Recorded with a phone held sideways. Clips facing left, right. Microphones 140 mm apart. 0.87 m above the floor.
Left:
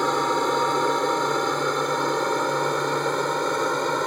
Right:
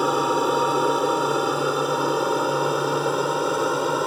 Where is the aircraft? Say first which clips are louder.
Right 2 dB; 5° right (ahead or behind).